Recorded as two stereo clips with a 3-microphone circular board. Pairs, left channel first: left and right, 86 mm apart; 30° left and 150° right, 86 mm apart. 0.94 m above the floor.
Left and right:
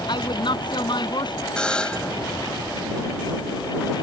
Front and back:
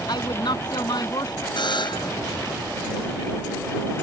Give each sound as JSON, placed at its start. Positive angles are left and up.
{"t": 0.1, "sound": "a woman speaking", "azimuth_deg": 65}
{"t": 1.6, "sound": "a buzzer", "azimuth_deg": 10}